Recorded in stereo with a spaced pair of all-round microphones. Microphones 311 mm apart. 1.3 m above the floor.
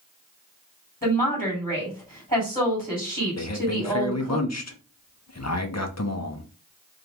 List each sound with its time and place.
1.0 s a woman speaking: 20° left (ahead or behind), 3 m
3.4 s a man speaking: 50° left (ahead or behind), 0.8 m